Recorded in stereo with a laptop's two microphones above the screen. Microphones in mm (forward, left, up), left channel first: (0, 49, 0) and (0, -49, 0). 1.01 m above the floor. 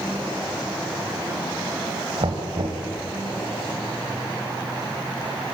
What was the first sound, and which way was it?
Knocking, 85° right.